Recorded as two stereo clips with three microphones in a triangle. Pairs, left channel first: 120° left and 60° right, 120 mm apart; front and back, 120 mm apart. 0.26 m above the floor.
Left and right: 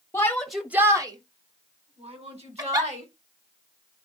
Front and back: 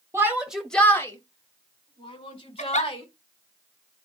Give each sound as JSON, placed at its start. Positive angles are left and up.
{"t": 0.1, "sound": "a shout", "azimuth_deg": 150, "distance_m": 1.1}
{"t": 2.6, "sound": "a giggle", "azimuth_deg": 0, "distance_m": 1.0}